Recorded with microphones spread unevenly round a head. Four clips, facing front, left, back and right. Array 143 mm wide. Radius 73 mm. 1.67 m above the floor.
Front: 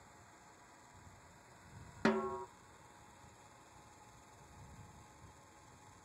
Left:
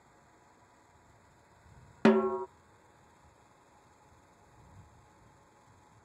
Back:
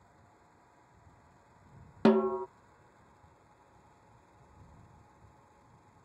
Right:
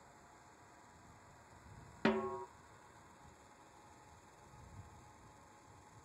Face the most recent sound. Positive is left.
turn(degrees=130)